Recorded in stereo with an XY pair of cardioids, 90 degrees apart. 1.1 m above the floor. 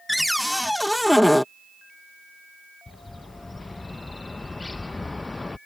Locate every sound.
0.1 s a cupboard door: 5° left
2.9 s a bird: 25° left